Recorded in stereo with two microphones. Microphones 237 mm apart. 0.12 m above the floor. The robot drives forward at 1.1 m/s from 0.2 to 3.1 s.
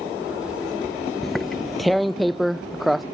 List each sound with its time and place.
1.2 s tearing paper: centre (ahead or behind)